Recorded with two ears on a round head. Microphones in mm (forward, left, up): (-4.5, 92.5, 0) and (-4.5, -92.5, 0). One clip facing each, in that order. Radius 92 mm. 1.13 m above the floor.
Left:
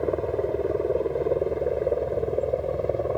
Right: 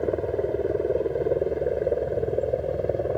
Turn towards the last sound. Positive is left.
turn(degrees=-5)  # may be behind; listen again after turning